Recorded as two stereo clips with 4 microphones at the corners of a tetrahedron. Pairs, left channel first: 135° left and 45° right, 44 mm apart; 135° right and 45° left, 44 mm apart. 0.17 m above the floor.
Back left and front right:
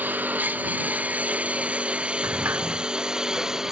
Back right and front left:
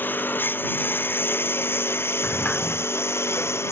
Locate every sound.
0.0 s a lawn mower: 90° right; by 3.7 s 120° right
2.2 s a sliding door: 75° right